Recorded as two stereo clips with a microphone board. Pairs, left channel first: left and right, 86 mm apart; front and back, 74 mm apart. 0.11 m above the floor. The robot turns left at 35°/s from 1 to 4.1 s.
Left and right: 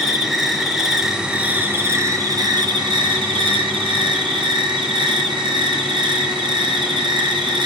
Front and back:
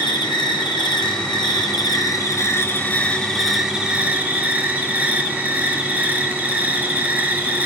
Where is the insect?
Straight ahead, 1.0 m; by 7.7 s 110° right, 1.0 m.